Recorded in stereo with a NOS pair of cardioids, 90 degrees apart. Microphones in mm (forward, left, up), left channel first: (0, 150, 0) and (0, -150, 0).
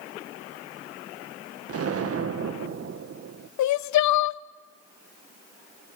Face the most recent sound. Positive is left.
turn(degrees=65)